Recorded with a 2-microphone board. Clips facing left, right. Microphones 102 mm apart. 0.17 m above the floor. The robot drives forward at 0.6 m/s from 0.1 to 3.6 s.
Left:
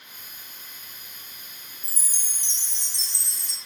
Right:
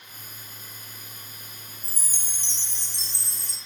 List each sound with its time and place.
1.8 s a chime: 60° right (ahead or behind), 1.2 m; by 3.6 s 50° right (ahead or behind), 1.4 m